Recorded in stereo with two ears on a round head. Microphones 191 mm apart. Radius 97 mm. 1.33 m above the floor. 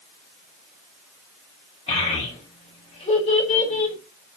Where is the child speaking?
35° left (ahead or behind), 5 m.